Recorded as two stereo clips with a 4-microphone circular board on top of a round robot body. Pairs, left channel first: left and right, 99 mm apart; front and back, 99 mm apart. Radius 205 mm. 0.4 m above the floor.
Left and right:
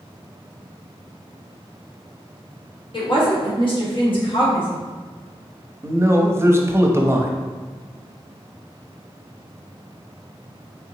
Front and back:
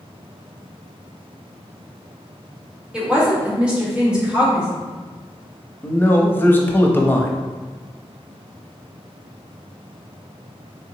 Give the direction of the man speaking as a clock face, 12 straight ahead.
2 o'clock.